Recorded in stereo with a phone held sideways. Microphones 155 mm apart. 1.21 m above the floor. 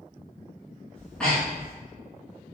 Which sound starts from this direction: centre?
Breathing, at 0.9 s.